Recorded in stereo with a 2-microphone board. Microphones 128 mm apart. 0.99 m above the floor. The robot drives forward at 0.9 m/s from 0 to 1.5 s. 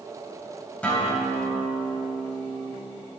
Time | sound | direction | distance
0.8 | a guitar | 10° left (ahead or behind) | 4 m